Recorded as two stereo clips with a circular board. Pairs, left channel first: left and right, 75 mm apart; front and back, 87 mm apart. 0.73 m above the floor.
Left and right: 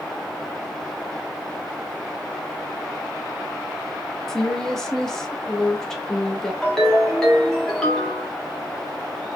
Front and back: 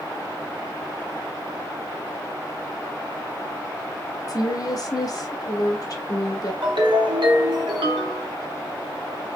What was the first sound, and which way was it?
A woman speaking, 10° left.